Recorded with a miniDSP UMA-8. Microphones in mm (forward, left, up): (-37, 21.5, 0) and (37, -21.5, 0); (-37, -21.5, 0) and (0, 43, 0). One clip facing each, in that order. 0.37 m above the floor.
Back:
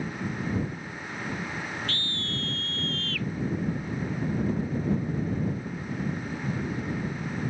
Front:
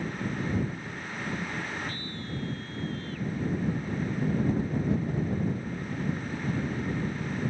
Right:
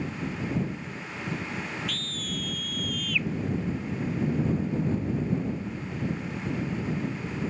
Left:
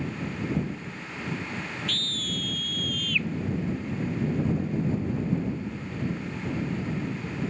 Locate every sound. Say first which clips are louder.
1.9 s a scream: back 2 dB, left 1 dB; 155° left